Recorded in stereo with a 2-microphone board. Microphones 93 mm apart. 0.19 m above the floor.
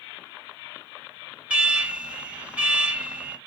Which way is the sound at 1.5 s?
10° right (ahead or behind).